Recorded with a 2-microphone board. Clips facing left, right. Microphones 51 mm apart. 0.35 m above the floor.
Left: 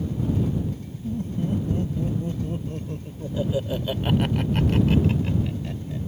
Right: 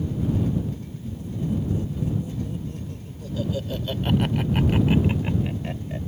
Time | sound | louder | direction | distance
1.0 | laughter | left 3 dB | 55° left (ahead or behind) | ?